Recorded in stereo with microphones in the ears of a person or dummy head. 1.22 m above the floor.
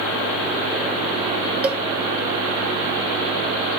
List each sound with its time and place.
1.6 s a cowbell: 10° right (ahead or behind), 0.6 m